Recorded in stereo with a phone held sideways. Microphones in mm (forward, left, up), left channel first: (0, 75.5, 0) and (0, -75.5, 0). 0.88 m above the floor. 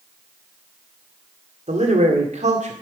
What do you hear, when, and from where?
1.7 s a man speaking: 50° right (ahead or behind), 1.9 m